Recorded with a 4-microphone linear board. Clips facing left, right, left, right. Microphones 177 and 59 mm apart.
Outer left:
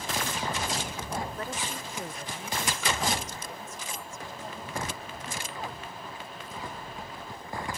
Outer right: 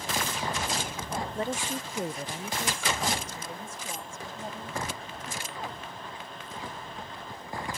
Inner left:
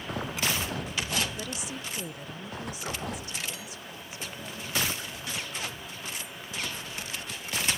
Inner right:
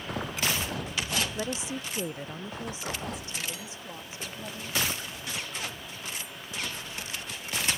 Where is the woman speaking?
30° right (ahead or behind).